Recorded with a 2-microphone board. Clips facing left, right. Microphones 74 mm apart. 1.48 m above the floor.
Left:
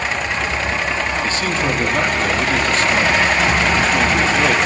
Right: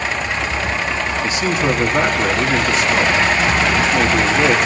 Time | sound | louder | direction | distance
1.2 | a man speaking | right 2 dB | 15° right (ahead or behind) | 2.5 m